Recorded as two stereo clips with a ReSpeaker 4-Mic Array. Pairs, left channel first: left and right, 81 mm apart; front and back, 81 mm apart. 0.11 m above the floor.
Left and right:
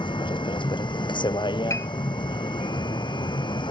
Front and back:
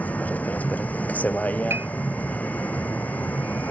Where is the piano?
130° left.